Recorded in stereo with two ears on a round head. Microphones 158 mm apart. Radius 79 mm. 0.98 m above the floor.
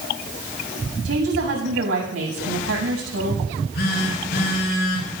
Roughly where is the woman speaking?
Right.